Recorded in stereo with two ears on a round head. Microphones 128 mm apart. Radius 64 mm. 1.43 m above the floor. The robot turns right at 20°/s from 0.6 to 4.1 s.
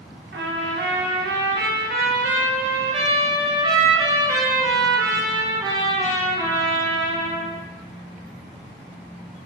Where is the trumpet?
95° right, 0.5 m; by 7.6 s 25° right, 0.5 m.